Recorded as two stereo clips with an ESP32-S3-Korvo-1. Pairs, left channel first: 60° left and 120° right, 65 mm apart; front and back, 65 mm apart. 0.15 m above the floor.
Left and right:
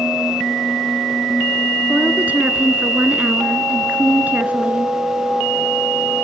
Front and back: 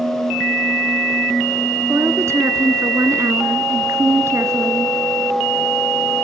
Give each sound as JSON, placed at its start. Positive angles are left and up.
{"t": 1.9, "sound": "a woman speaking", "azimuth_deg": -175, "distance_m": 2.0}